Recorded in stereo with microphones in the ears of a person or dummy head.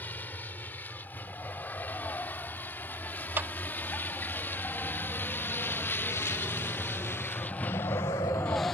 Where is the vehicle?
10° left (ahead or behind); by 8.7 s 5° left (ahead or behind).